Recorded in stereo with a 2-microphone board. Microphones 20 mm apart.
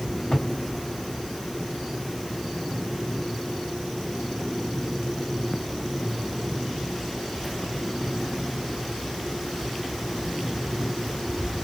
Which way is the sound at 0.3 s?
55° left (ahead or behind).